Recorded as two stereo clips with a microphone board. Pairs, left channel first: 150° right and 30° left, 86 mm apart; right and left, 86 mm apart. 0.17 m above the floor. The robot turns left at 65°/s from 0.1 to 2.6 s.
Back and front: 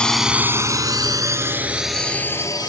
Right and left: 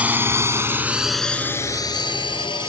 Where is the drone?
145° left; by 2.7 s 110° right.